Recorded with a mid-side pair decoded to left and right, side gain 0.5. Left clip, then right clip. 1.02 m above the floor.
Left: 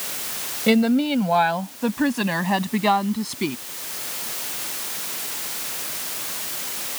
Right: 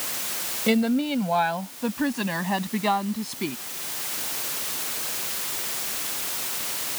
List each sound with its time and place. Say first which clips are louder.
0.7 s a woman speaking: left 4 dB; 25° left